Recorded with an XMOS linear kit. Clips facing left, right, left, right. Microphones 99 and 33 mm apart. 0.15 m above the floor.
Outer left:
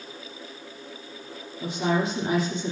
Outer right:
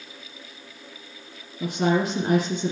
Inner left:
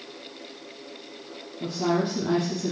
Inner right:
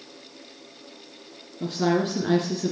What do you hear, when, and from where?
1.6 s a woman speaking: 55° right (ahead or behind), 3 m